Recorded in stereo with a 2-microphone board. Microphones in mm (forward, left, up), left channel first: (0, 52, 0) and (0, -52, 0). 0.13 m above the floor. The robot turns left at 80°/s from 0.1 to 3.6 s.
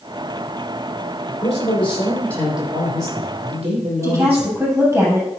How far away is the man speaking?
About 5.5 m.